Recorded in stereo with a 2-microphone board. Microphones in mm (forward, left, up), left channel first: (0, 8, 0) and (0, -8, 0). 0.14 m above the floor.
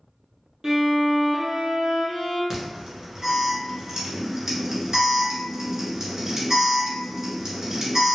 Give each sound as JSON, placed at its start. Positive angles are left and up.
{"t": 0.6, "sound": "a violin", "side_deg": -35, "distance_m": 1.2}
{"t": 2.5, "sound": "an alarm", "side_deg": -25, "distance_m": 1.4}